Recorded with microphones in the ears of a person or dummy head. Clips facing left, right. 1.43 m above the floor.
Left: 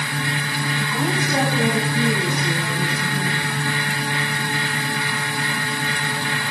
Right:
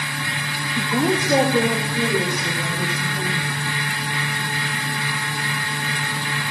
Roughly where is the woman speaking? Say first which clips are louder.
Right 5 dB; right.